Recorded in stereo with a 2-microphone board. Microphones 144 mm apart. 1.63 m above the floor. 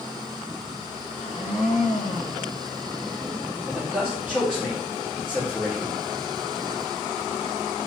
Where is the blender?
65° left (ahead or behind), 2.5 m.